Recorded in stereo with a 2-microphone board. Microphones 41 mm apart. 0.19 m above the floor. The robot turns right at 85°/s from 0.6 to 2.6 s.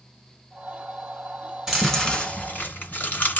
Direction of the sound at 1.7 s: 10° right (ahead or behind).